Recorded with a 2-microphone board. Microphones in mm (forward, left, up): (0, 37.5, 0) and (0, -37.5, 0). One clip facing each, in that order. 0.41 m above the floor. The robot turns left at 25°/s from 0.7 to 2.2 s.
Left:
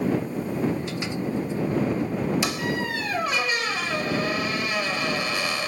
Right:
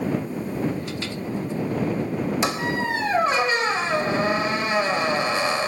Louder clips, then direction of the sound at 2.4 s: Right 3 dB; 30° right (ahead or behind).